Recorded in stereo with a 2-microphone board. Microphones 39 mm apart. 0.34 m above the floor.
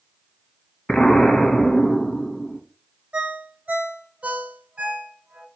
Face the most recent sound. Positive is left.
turn(degrees=-30)  # may be behind; listen again after turning